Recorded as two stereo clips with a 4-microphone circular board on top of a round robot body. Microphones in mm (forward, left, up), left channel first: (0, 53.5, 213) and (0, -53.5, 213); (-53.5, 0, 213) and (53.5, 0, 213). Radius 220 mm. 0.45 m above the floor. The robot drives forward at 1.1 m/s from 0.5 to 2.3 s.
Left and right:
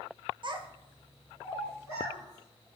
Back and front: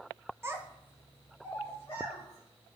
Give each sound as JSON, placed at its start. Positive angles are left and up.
{"t": 0.4, "sound": "a child speaking", "azimuth_deg": -60, "distance_m": 0.7}